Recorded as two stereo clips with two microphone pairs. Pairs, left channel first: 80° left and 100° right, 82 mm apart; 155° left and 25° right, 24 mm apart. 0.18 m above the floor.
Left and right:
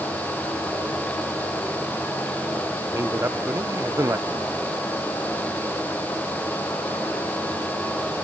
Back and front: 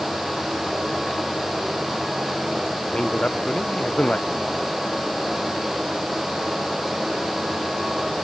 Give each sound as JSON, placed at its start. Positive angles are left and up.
{"t": 2.9, "sound": "a man speaking", "azimuth_deg": -160}